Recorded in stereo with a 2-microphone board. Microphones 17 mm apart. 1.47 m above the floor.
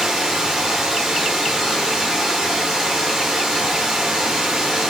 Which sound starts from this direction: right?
Running water, at 0.0 s.